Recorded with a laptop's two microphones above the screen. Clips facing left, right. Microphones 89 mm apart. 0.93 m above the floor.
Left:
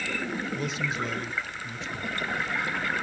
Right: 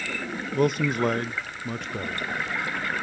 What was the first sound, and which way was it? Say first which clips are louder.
A man speaking: right 8 dB; 60° right (ahead or behind).